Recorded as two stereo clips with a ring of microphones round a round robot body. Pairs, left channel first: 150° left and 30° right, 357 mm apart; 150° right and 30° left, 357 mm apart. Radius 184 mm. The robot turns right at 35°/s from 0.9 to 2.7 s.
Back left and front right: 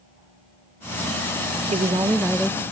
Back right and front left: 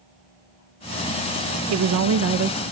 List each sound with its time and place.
1.7 s a woman speaking: 35° left, 0.7 m; by 2.6 s 65° left, 0.7 m